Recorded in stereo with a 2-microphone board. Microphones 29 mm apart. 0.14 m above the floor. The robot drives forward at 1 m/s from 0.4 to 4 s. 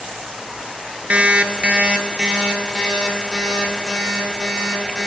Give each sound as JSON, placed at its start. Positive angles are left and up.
{"t": 1.1, "sound": "an alarm clock", "side_deg": -50, "distance_m": 0.9}